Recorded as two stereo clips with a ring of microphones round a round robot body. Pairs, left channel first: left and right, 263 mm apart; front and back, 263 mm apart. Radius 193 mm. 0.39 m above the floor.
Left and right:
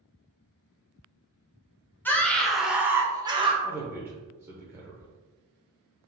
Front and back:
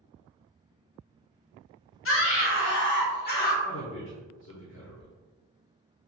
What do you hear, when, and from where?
2.0 s a scream: 10° left, 1.8 m; by 3.5 s 35° right, 1.4 m
3.6 s a man speaking: 10° right, 1.1 m